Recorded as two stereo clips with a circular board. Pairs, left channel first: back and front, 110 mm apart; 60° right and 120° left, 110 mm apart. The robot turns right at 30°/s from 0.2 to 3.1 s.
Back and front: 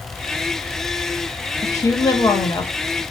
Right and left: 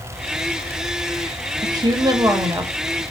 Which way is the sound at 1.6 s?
135° left.